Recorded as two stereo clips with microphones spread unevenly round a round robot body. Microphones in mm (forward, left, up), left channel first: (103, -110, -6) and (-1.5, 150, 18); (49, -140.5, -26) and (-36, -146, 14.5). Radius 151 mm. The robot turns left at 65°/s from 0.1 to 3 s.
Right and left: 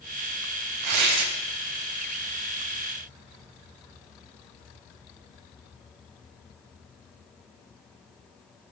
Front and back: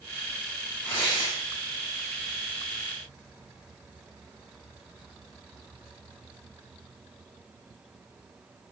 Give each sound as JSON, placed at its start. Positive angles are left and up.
{"t": 0.8, "sound": "tearing paper", "azimuth_deg": 100, "distance_m": 0.8}